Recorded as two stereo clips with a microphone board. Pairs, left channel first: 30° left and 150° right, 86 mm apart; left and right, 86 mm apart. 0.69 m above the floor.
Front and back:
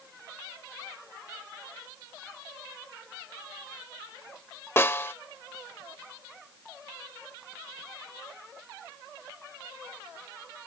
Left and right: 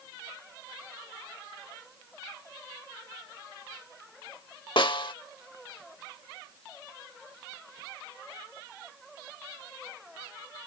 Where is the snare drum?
90° left.